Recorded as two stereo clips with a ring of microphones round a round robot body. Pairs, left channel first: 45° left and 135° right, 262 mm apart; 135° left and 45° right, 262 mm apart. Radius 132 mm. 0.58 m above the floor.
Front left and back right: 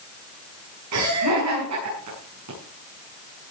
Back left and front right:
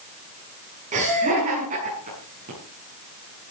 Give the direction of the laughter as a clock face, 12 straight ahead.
4 o'clock.